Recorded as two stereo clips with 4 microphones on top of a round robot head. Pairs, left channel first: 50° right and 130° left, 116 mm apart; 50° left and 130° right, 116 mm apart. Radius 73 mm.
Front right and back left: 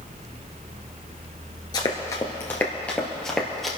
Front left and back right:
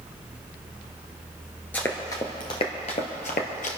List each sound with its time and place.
1.7 s running footsteps: 20° right, 1.5 m; by 3.7 s 40° left, 2 m